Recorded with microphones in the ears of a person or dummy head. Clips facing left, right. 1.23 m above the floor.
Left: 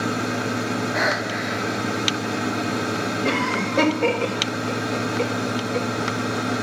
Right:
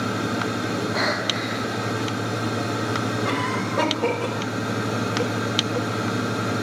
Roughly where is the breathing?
Left.